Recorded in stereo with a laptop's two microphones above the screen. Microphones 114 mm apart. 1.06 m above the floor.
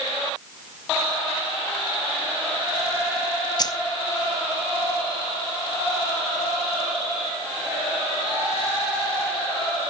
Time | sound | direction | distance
3.6 | keys jangling | 35° left (ahead or behind) | 0.6 m